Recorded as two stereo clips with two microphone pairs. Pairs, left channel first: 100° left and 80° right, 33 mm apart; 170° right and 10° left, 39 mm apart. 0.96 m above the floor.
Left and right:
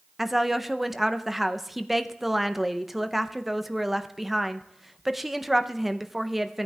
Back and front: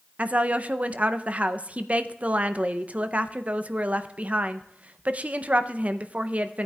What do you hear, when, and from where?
0.2 s a woman speaking: 10° right, 0.5 m